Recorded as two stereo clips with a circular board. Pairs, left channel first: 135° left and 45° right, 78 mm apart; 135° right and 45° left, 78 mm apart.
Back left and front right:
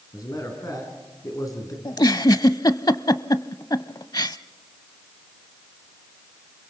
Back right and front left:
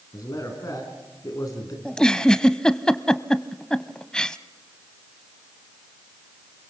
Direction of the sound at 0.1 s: Straight behind.